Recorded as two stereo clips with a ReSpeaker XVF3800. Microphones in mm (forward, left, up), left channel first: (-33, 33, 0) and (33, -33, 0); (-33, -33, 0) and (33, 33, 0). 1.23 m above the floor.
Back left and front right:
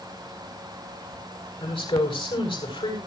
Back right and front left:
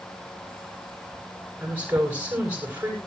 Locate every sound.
1.6 s a woman speaking: 120° left, 7 m